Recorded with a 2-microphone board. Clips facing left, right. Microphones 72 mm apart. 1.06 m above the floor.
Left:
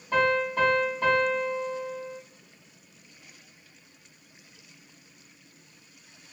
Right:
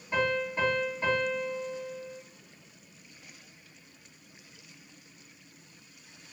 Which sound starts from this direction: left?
A piano, at 0.1 s.